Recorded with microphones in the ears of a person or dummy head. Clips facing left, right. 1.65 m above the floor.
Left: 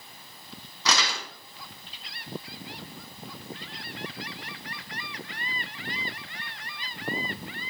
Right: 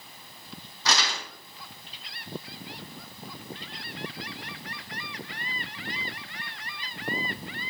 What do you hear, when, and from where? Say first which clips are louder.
0.8 s crumpling: left 1 dB; 70° left (ahead or behind), 4 m